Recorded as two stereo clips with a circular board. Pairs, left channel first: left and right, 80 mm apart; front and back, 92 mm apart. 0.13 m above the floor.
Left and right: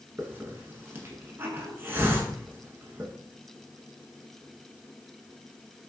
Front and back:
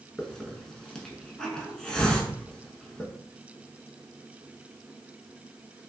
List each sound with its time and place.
0.2 s a hiss: 75° right, 0.6 m